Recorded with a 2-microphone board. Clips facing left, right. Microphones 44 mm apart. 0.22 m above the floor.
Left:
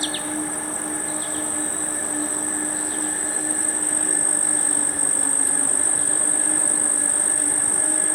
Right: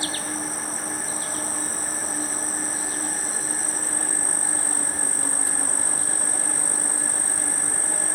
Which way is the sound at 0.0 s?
25° left (ahead or behind).